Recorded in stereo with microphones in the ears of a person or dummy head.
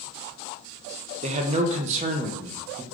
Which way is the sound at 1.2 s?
40° right (ahead or behind).